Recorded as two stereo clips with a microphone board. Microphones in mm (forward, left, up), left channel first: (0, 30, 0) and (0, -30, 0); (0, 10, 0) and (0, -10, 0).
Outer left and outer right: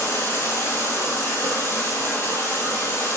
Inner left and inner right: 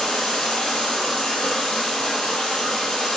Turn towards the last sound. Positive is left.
turn(degrees=45)  # may be behind; listen again after turning